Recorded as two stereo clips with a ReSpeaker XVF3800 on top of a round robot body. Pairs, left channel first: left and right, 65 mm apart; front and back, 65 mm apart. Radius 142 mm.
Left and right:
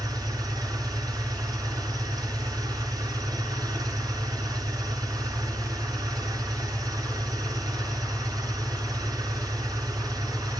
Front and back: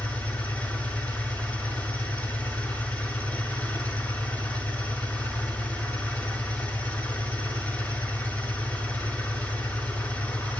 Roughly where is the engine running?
Ahead right.